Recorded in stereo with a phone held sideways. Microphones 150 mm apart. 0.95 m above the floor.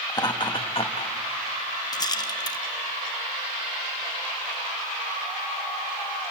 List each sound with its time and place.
0.1 s laughter: 25° left (ahead or behind), 1.3 m; by 1.1 s 45° left (ahead or behind), 1.0 m
1.9 s a rattle: 25° left (ahead or behind), 0.6 m